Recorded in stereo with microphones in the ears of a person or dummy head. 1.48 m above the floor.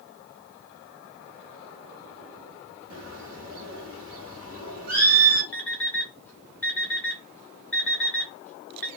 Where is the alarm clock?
10° left (ahead or behind), 0.9 m.